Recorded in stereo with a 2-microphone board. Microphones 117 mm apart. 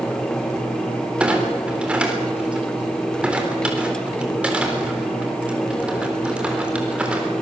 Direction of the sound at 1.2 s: 10° right (ahead or behind).